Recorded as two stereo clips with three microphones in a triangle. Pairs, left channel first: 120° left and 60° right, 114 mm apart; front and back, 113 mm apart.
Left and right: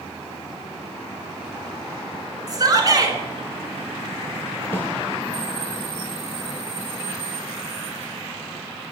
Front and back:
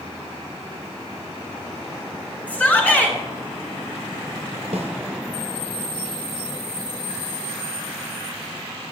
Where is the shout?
70° right, 1.9 m.